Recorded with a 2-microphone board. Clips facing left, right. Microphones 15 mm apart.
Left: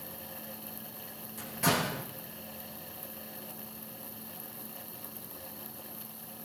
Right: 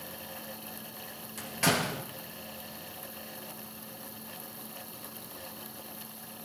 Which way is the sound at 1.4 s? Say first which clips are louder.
Right 1 dB; 45° right (ahead or behind).